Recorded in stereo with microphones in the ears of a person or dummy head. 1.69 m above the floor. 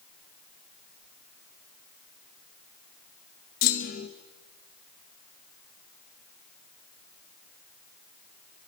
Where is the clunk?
50° left (ahead or behind), 1.4 m.